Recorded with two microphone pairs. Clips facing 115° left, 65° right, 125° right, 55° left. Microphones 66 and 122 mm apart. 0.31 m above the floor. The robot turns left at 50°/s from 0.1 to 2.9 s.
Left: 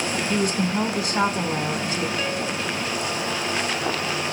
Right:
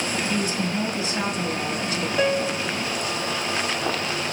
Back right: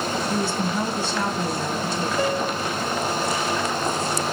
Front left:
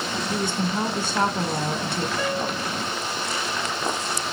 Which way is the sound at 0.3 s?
130° left.